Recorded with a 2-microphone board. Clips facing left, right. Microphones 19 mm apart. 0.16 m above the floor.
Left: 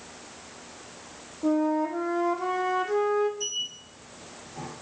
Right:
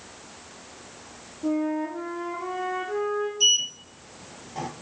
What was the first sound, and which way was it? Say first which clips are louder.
A flute: left 2 dB; 35° left (ahead or behind).